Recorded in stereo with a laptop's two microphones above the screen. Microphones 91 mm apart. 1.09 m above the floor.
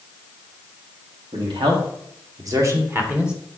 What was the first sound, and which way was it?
A man speaking, 65° right (ahead or behind).